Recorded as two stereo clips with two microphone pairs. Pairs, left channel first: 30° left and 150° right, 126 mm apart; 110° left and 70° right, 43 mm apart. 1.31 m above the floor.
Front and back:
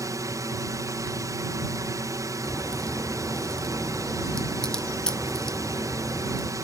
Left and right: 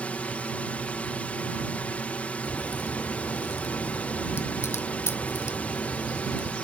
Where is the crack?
115° left.